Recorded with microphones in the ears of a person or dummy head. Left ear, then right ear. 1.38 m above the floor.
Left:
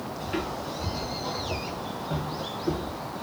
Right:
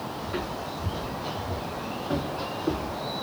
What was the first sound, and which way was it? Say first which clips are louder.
Footsteps: left 2 dB; 30° left (ahead or behind).